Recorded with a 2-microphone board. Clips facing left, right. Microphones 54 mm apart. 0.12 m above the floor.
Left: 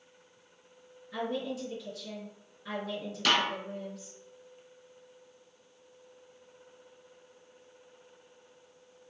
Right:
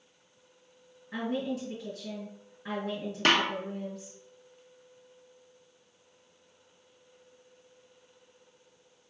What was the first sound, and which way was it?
A woman speaking, 30° right (ahead or behind).